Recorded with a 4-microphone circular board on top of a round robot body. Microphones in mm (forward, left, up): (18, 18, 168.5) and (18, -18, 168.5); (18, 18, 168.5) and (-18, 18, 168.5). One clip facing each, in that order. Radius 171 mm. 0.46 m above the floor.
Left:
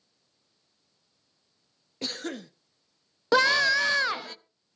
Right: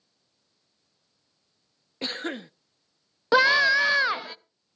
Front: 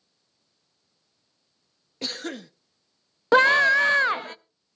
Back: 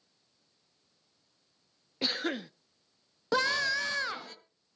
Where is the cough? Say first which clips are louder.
Right 3 dB, back 1 dB; 120° right, 0.9 m.